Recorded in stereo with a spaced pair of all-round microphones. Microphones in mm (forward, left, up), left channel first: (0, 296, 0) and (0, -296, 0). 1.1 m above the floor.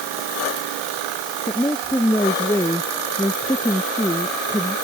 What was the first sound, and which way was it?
A woman speaking, 5° left (ahead or behind).